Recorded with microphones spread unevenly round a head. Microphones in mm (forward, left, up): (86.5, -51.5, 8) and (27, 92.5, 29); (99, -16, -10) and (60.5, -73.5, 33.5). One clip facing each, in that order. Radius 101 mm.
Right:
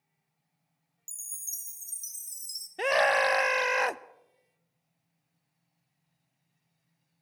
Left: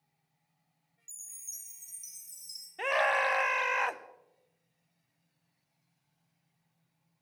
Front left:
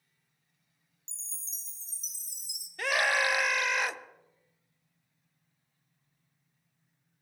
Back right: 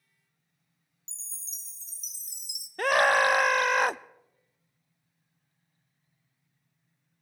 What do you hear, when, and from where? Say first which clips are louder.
1.1 s a chime: right 3 dB, back right 1 dB; 110° right, 1.2 m
2.8 s a scream: right 5 dB, back right 6 dB; 65° right, 0.5 m